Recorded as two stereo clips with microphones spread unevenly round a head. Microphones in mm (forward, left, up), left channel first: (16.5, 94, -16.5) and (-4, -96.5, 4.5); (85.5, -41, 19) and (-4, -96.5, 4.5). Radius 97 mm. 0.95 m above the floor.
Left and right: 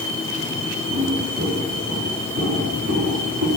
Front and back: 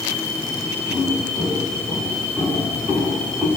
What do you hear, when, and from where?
0.9 s footsteps: 50° right, 9 m; by 3.5 s 70° right, 7 m